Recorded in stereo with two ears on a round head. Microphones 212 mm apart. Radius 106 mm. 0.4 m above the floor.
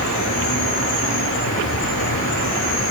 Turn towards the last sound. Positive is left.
turn(degrees=55)  # may be behind; listen again after turning